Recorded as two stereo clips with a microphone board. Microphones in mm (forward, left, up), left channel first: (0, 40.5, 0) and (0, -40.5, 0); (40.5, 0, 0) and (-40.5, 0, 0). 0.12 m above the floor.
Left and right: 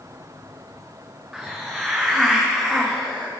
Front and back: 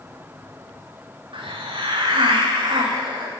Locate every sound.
1.3 s a hiss: 175° right, 2.5 m